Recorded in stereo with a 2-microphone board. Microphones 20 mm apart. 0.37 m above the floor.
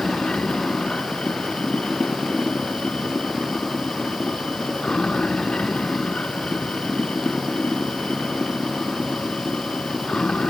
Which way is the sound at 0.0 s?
65° left (ahead or behind).